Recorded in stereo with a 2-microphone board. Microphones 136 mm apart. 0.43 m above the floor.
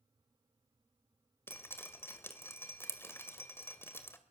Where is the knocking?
I don't hear knocking.